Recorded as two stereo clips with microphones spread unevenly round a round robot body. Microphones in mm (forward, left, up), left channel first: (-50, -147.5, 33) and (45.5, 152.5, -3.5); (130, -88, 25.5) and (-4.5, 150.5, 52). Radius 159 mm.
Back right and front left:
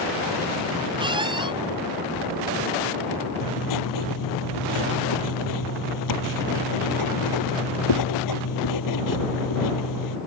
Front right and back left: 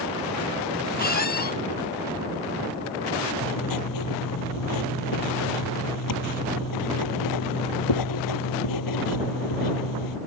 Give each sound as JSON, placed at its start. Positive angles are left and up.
{"t": 1.0, "sound": "a squeak", "azimuth_deg": -5}
{"t": 3.4, "sound": "writing", "azimuth_deg": -80}